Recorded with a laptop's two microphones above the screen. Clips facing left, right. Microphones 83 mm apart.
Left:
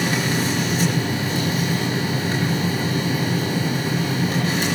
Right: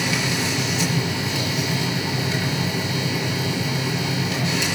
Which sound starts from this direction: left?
A machine running, at 0.0 s.